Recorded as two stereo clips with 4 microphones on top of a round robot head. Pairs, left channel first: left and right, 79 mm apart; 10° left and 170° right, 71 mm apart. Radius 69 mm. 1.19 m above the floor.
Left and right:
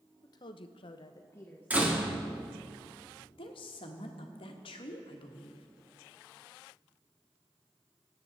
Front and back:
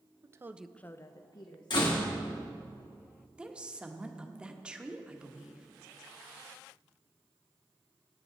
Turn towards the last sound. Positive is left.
turn(degrees=110)